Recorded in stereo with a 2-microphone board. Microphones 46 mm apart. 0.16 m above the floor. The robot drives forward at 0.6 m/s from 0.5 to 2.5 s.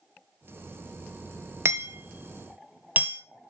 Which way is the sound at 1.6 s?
55° right (ahead or behind).